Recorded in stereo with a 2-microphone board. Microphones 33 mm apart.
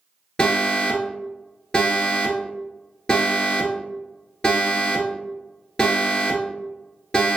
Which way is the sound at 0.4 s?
25° left (ahead or behind).